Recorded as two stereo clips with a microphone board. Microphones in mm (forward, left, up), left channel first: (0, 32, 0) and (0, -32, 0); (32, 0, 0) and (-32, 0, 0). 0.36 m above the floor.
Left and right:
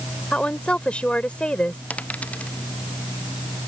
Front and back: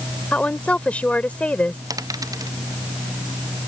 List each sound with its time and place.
0.3 s a woman speaking: 40° left
1.9 s a dropped coin: 160° left